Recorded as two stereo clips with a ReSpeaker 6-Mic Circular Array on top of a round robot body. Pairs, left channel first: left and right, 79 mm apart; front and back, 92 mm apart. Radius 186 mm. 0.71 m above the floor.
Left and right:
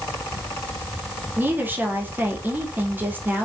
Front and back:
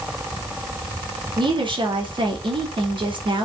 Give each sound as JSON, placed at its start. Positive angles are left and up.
{"t": 1.4, "sound": "a woman speaking", "azimuth_deg": -155, "distance_m": 2.5}